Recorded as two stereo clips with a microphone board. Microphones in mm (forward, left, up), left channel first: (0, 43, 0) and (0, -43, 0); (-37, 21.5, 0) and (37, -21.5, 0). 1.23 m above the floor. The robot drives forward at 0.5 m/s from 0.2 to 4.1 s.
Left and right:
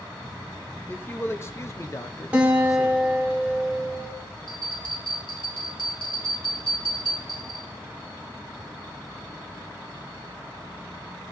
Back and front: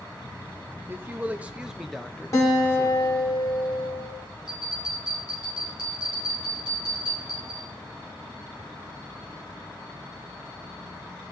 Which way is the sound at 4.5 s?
110° left.